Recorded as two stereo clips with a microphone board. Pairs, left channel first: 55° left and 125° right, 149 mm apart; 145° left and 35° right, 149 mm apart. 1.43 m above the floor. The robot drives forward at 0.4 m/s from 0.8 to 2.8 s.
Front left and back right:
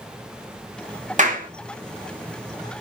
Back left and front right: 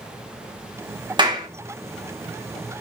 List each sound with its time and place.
1.2 s a clap: 95° right, 1.1 m; by 1.5 s 100° right, 1.1 m